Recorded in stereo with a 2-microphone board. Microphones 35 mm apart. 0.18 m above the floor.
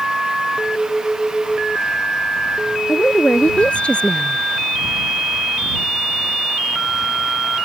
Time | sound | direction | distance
2.9 | a woman speaking | 35° left (ahead or behind) | ?